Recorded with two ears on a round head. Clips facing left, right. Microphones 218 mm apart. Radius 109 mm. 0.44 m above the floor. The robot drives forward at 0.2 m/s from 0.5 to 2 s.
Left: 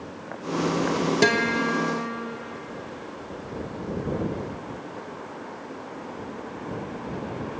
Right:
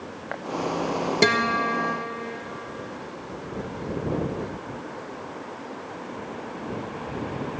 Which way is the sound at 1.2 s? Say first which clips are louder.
Left 1 dB; 5° left (ahead or behind).